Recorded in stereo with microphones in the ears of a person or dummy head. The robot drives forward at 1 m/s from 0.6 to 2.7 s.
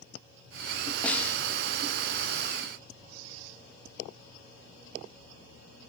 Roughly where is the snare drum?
Centre.